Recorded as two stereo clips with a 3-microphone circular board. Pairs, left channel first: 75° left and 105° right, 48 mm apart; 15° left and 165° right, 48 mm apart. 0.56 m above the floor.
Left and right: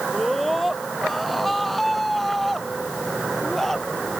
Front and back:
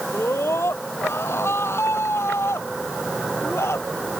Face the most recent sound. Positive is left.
turn(degrees=-10)